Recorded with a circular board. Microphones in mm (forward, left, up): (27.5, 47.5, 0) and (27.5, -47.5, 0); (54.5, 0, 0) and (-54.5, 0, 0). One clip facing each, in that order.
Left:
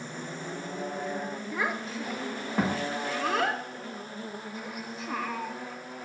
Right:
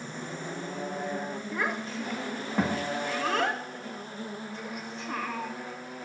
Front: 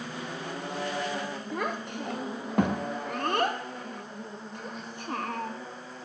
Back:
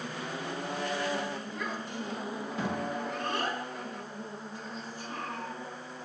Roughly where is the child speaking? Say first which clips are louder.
Even, front 4 dB; ahead.